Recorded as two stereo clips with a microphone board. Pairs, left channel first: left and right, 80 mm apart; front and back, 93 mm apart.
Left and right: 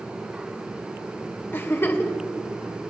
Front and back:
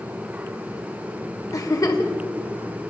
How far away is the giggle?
About 1.1 m.